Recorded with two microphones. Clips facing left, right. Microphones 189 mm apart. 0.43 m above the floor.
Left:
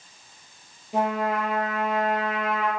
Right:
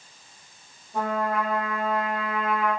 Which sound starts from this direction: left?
A trumpet, at 0.9 s.